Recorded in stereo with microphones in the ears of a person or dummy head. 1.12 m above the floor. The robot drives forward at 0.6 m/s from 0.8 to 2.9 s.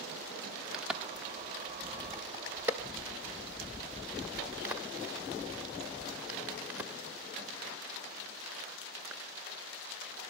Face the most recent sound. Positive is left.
turn(degrees=-10)  # may be behind; listen again after turning